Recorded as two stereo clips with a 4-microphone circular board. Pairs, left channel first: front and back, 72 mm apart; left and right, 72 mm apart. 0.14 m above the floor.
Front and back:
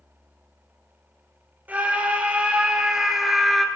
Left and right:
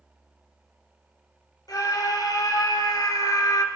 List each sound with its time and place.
1.7 s a scream: 115° left, 4.5 m; by 3.7 s 85° left, 2.5 m